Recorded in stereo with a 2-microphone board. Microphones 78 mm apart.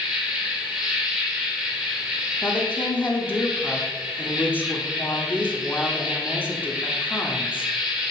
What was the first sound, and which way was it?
An insect, 10° right (ahead or behind).